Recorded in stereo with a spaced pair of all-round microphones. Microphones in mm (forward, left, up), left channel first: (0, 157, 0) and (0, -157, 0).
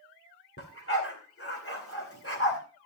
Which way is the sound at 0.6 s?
45° left (ahead or behind).